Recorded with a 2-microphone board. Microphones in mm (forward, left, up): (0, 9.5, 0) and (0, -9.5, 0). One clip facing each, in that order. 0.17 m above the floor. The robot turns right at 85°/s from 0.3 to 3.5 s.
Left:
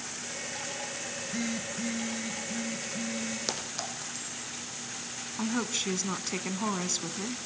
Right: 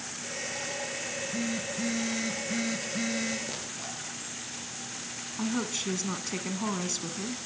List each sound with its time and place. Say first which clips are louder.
1.1 s a phone buzzing: even; 135° left, 1.9 m; by 3.4 s 30° right, 1.9 m
3.5 s a clink: left 3 dB; 70° left (ahead or behind), 6 m; by 4.5 s 75° left (ahead or behind), 6 m
5.4 s a woman speaking: even; 15° left (ahead or behind), 1.2 m